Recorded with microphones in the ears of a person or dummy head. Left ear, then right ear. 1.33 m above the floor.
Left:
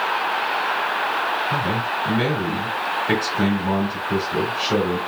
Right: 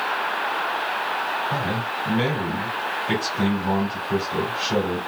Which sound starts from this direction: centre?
A man speaking, at 1.5 s.